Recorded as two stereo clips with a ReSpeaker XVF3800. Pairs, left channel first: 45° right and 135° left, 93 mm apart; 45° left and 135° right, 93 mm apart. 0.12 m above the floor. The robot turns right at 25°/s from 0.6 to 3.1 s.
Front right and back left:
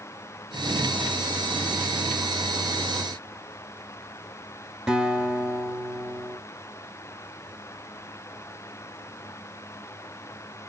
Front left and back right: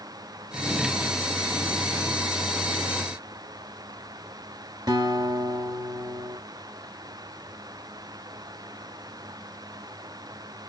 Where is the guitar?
145° right, 2 m.